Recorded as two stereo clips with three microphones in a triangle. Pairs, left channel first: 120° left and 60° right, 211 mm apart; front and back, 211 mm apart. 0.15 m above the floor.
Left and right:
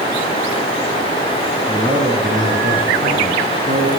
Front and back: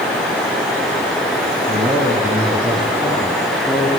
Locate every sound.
1.7 s a man speaking: 120° right, 2.5 m; by 3.9 s 80° right, 3.5 m